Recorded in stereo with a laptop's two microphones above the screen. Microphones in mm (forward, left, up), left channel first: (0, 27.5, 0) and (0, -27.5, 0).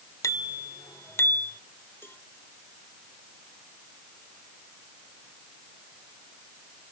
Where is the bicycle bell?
90° left; by 1.6 s 35° left (ahead or behind).